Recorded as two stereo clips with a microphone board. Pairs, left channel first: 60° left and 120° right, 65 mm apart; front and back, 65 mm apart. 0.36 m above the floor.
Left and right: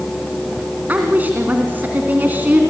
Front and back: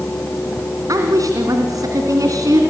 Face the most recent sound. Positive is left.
turn(degrees=180)